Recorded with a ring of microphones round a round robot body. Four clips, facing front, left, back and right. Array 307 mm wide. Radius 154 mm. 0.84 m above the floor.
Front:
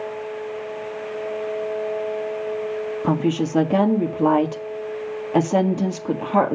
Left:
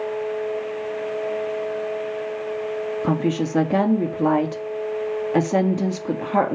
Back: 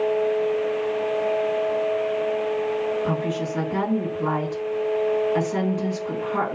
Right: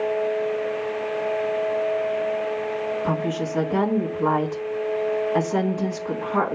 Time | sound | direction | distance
3.0 | a woman speaking | 35° left | 1.8 m